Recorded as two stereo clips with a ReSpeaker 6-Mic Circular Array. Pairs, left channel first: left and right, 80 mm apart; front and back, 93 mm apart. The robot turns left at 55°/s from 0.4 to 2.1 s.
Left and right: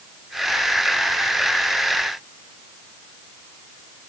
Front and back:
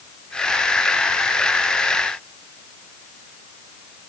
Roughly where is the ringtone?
I don't hear a ringtone.